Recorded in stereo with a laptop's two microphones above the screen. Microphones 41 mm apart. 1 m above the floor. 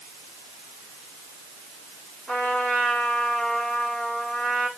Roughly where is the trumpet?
Left.